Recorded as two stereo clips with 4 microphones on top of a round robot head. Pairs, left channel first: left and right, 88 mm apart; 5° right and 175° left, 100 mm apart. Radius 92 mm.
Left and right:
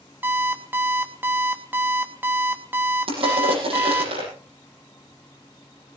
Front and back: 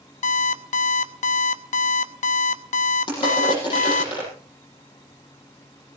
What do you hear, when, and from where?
0.2 s an alarm clock: 15° right, 0.8 m
3.1 s crushing: 55° right, 9.5 m